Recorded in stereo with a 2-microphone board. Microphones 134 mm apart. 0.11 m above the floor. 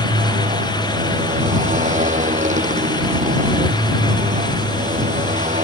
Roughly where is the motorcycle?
Right.